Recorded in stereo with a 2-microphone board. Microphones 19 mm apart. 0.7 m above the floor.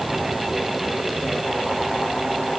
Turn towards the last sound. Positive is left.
No sound to turn to.